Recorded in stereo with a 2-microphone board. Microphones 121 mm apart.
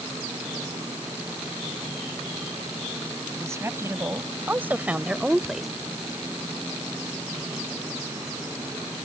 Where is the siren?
I don't hear a siren.